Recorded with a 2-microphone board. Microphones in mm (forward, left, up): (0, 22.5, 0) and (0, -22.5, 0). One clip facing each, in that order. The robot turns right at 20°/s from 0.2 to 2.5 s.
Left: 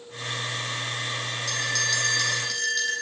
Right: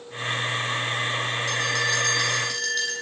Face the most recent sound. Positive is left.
turn(degrees=5)  # may be behind; listen again after turning